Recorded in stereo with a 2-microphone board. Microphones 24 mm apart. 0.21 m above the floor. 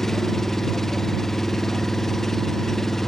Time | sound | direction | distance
0.0 | an engine running | 15° left (ahead or behind) | ?